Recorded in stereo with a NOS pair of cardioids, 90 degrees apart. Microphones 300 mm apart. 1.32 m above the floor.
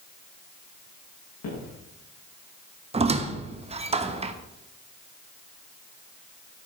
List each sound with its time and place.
1.4 s footsteps: 65° left, 7 m
2.9 s a squeak: 20° right, 1.1 m